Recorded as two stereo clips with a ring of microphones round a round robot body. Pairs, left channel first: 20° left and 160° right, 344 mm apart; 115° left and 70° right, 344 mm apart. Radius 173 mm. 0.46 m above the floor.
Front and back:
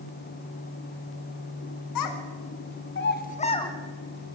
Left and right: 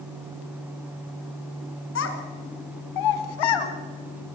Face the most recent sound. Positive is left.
turn(degrees=105)